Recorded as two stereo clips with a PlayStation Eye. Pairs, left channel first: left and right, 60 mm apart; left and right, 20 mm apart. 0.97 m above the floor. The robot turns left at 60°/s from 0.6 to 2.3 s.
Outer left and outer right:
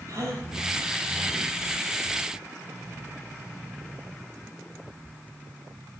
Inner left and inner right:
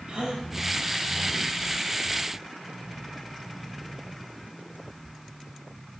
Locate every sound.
0.1 s a gasp: 65° right (ahead or behind), 3 m